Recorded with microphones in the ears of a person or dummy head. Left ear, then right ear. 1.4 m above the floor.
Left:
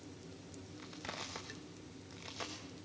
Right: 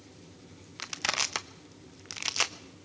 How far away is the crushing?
About 1.0 m.